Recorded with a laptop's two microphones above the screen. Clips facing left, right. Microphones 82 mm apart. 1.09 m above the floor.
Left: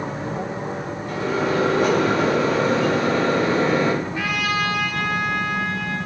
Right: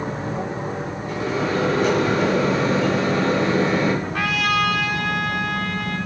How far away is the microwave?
About 5 m.